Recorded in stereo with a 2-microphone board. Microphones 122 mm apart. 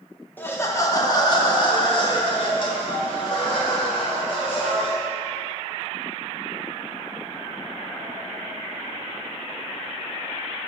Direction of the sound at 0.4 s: 15° left (ahead or behind).